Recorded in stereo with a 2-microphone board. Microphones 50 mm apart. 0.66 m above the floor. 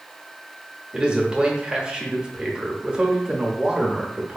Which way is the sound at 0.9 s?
20° right (ahead or behind).